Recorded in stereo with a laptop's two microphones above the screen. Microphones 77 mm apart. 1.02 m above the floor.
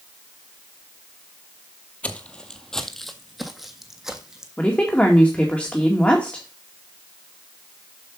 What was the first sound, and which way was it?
Footsteps, 20° left (ahead or behind).